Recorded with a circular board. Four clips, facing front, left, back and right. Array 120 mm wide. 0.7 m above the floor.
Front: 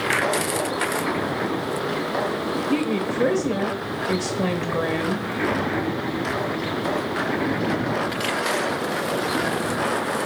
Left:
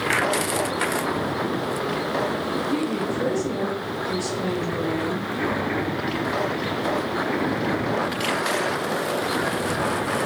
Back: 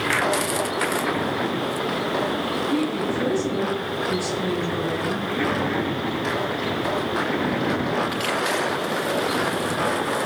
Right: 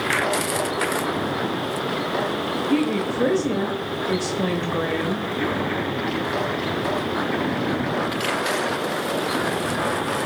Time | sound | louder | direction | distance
2.7 | a woman speaking | right 6 dB, front 1 dB | 40° right | 0.9 m